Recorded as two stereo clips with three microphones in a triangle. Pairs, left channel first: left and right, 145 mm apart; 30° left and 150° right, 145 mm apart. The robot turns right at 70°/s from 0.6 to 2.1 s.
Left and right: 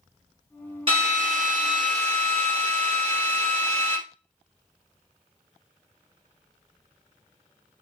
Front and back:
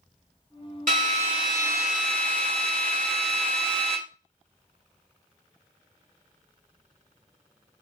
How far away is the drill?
About 2.0 m.